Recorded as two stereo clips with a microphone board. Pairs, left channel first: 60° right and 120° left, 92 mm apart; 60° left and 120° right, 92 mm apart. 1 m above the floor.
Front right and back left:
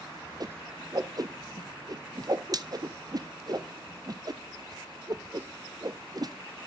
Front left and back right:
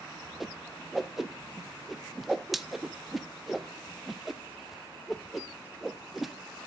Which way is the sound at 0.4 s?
150° left.